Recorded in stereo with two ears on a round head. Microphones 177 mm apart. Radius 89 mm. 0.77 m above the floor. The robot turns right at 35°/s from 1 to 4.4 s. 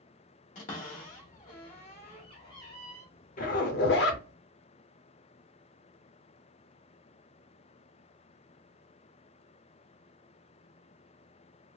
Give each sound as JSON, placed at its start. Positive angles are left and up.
{"t": 0.6, "sound": "a cupboard door", "side_deg": 45, "distance_m": 1.3}
{"t": 3.4, "sound": "a zipper", "side_deg": 45, "distance_m": 0.8}